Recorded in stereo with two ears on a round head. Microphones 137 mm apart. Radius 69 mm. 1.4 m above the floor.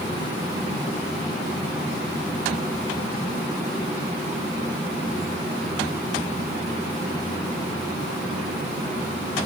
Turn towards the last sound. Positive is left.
No sound to turn to.